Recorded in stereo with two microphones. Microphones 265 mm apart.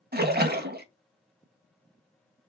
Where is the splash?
40° right (ahead or behind), 0.6 m.